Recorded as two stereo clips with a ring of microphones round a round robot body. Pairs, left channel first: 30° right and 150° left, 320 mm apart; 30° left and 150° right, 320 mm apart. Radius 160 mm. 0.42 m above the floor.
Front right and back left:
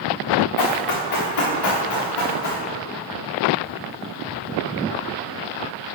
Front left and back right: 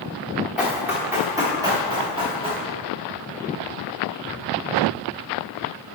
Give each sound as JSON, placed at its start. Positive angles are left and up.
{"t": 0.6, "sound": "running footsteps", "azimuth_deg": -65, "distance_m": 3.0}